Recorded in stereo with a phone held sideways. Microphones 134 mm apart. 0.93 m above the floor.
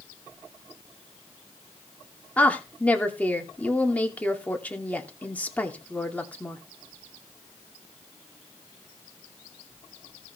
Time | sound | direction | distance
2.4 | a woman speaking | 10° left (ahead or behind) | 2.5 m